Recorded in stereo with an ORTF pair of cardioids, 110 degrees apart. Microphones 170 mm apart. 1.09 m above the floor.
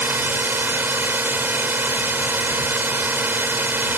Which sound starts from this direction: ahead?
A drone, at 0.0 s.